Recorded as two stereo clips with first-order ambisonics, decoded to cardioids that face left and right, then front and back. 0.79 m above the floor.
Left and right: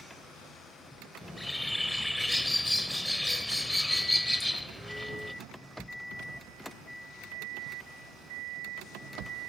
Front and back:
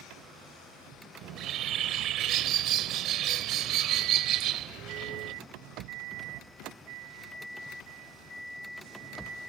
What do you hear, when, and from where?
1.2 s a bird: 175° left